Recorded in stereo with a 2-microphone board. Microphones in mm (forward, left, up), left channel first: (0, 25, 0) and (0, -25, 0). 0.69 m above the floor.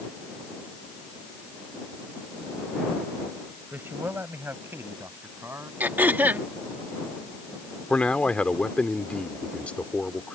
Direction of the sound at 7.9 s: 25° left (ahead or behind).